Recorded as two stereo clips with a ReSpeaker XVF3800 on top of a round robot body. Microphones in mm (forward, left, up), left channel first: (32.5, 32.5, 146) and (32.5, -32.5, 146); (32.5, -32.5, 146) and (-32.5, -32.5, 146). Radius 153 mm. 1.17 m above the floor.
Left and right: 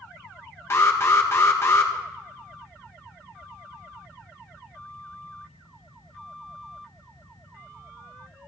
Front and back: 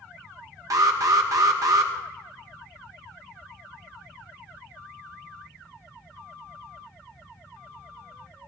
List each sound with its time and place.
0.7 s an alarm: 140° left, 0.9 m